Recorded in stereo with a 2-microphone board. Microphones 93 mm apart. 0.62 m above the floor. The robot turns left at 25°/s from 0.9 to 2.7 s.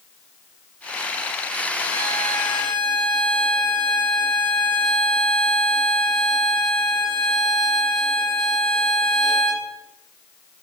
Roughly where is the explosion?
No explosion in this recording.